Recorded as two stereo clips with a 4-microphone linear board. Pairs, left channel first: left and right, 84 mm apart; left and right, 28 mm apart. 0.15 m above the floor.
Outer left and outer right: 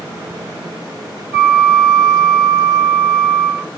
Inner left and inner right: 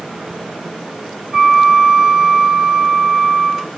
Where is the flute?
35° right (ahead or behind), 1.7 m.